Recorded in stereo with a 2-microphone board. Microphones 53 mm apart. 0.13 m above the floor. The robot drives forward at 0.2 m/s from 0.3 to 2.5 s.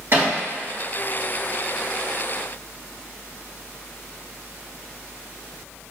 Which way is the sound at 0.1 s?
45° right (ahead or behind).